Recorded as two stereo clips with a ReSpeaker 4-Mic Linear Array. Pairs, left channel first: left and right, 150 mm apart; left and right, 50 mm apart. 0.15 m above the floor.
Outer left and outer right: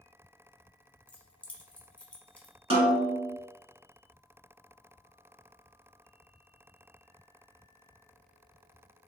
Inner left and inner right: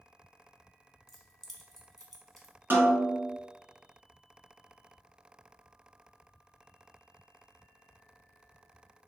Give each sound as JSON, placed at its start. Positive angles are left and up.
{"t": 1.1, "sound": "keys jangling", "side_deg": 10, "distance_m": 0.8}
{"t": 2.7, "sound": "a snare drum", "side_deg": -40, "distance_m": 1.0}